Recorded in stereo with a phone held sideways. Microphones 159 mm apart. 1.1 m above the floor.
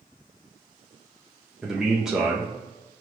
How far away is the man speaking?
About 0.7 m.